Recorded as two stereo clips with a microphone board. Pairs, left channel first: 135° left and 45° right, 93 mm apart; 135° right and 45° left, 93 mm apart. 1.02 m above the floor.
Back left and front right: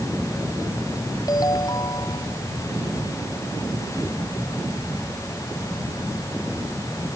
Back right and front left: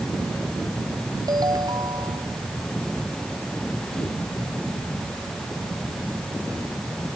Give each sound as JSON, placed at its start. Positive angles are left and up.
{"t": 1.3, "sound": "a ringtone", "azimuth_deg": 90}